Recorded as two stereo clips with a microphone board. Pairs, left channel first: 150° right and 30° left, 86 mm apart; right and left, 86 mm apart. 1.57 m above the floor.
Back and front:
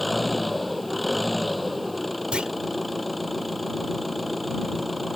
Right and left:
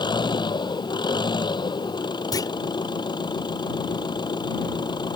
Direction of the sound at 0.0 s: 60° right.